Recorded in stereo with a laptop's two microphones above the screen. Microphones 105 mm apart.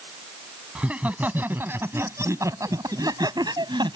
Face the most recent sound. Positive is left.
turn(degrees=-45)  # may be behind; listen again after turning